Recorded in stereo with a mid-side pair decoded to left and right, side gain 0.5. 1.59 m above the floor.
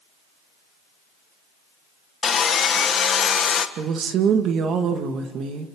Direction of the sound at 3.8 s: 60° right.